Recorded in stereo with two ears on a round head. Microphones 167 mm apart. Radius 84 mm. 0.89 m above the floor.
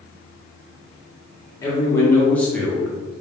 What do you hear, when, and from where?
1.6 s a man speaking: 20° left (ahead or behind), 1.2 m; by 3.2 s 10° right (ahead or behind), 0.8 m